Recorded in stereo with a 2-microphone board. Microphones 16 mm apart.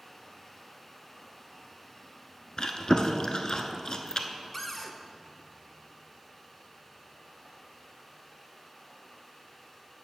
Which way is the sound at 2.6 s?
50° left (ahead or behind).